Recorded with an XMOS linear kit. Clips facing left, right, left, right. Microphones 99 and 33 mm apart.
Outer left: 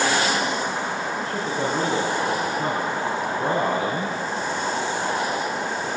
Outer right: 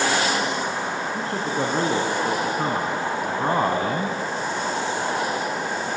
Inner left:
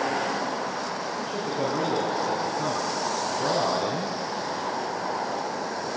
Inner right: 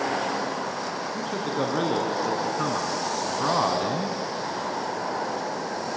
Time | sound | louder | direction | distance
1.1 | a man speaking | outer right 1 dB, inner right 3 dB | 70° right (ahead or behind) | 6 m